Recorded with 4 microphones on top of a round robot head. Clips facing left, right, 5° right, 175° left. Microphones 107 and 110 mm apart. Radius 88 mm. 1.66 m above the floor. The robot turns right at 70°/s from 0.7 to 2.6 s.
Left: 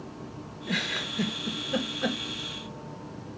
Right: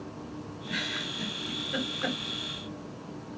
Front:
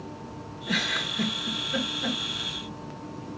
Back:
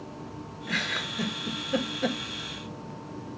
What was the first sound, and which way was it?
A giggle, 60° left.